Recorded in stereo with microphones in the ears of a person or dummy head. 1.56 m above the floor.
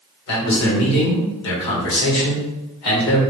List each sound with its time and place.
0.3 s a man speaking: 70° left (ahead or behind), 1.8 m